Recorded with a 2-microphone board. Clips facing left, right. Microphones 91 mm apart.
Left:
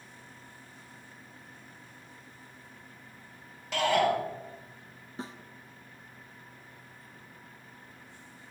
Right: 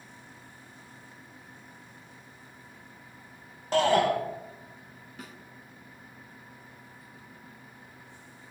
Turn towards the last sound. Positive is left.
turn(degrees=30)  # may be behind; listen again after turning